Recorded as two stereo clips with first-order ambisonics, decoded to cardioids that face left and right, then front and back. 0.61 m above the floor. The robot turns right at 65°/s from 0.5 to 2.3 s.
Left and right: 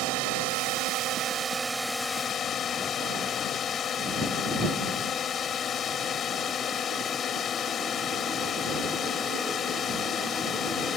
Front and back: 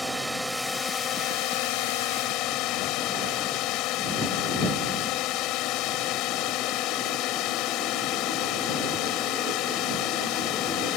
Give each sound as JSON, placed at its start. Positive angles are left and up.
{"t": 0.0, "sound": "a drone", "azimuth_deg": -90}